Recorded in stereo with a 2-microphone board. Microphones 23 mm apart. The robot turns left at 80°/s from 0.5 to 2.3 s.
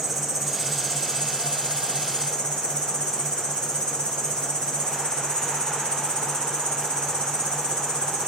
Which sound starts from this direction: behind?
An insect, at 0.0 s.